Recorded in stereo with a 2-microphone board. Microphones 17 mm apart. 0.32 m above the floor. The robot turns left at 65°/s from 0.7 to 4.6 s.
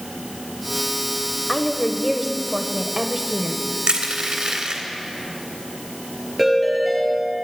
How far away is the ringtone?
About 5 m.